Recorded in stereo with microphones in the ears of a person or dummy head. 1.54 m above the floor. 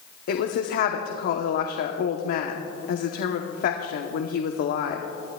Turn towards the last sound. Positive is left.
turn(degrees=55)  # may be behind; listen again after turning